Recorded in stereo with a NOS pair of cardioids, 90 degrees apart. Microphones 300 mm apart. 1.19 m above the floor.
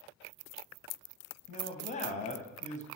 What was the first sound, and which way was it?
A man speaking, 25° left.